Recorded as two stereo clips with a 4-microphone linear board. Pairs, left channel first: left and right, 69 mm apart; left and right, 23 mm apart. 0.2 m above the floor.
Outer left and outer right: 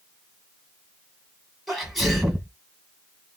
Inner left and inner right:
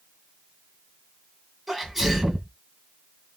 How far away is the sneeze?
About 1.6 m.